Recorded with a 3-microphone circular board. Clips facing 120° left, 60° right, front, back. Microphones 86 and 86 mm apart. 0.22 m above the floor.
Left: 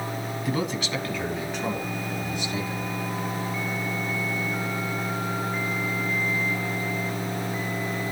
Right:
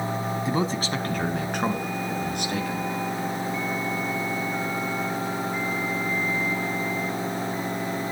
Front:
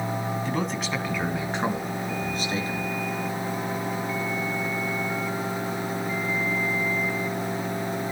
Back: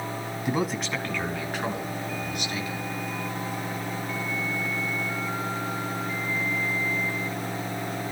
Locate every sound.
0.5 s a man speaking: 115° right, 1.8 m; by 2.9 s 50° right, 4.5 m